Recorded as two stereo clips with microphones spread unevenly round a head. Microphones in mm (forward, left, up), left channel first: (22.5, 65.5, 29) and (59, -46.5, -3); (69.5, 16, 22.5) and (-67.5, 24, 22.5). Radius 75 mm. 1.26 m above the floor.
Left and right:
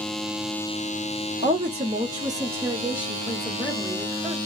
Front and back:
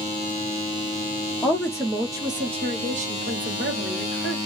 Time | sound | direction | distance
1.4 | a woman speaking | 80° right | 0.9 m